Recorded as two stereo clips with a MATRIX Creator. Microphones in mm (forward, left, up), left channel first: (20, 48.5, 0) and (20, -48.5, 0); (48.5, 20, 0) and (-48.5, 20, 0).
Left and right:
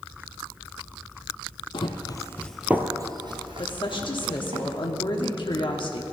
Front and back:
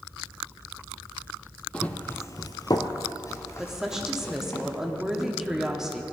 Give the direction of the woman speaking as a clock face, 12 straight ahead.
9 o'clock.